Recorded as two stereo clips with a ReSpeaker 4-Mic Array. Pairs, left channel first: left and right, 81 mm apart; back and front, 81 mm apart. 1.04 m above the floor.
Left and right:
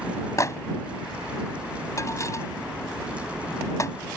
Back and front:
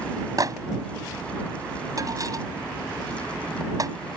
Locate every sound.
0.4 s a microwave: 40° left